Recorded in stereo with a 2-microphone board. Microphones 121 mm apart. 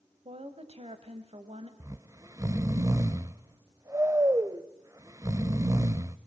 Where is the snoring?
25° right (ahead or behind), 0.7 m.